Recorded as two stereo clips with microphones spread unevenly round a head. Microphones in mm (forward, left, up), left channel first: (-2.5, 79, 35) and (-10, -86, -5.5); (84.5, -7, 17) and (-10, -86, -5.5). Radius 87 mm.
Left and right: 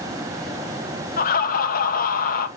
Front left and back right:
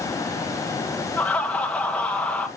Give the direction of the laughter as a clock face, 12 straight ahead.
8 o'clock.